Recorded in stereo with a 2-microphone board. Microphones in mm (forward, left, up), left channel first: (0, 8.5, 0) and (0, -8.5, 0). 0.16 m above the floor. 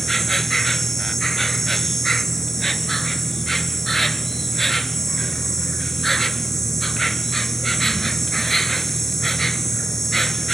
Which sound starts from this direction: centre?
An insect, at 0.0 s.